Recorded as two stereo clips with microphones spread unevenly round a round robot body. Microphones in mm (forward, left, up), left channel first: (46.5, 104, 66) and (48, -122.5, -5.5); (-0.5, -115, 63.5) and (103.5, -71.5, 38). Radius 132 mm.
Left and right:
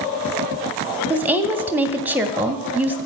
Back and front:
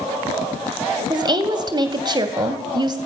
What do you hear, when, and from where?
1.1 s a woman speaking: 20° right, 1.9 m